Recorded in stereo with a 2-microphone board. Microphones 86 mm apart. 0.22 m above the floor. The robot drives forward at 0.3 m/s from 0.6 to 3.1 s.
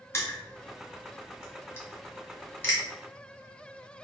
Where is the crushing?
30° left (ahead or behind), 1.4 m; by 2.8 s 25° left (ahead or behind), 1.7 m.